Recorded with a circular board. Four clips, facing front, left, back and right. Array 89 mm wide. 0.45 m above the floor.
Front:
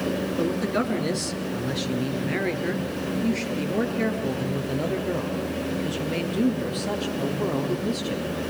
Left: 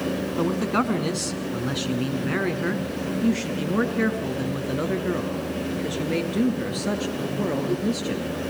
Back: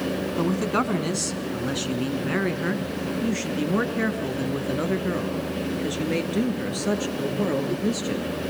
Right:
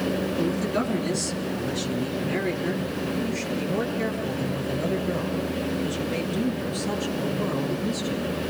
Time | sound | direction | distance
0.4 | a man speaking | 135° left | 4.5 m